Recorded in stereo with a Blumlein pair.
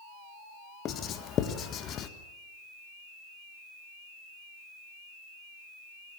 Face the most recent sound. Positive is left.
turn(degrees=30)